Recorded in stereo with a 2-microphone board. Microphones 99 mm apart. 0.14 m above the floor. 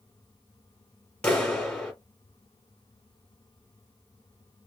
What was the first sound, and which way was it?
A clap, 10° left (ahead or behind).